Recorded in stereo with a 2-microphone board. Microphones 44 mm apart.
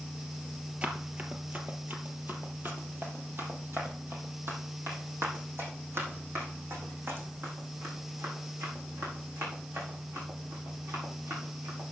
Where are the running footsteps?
30° right (ahead or behind), 1.6 m; by 11.8 s 70° right (ahead or behind), 6.5 m.